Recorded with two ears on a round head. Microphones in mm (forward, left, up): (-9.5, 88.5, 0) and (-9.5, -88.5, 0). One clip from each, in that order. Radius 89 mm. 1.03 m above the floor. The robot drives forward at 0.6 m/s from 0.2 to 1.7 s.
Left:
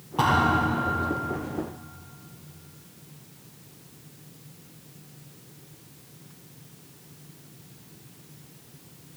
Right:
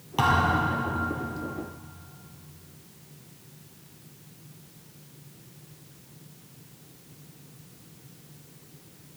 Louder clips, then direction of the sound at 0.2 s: Left 1 dB; 80° right.